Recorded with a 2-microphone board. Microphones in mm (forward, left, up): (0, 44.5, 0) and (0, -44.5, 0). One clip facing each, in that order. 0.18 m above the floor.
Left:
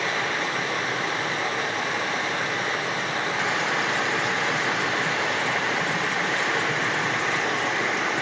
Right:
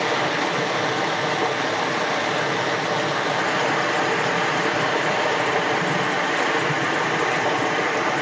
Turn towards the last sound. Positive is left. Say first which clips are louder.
# right 5 dB
turn(degrees=-75)  # may be behind; listen again after turning